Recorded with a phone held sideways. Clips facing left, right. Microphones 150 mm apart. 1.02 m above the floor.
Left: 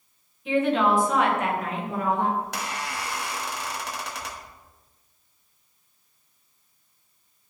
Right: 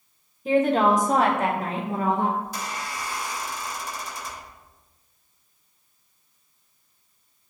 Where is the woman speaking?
40° right (ahead or behind), 0.9 m; by 2.3 s 20° right (ahead or behind), 1.3 m.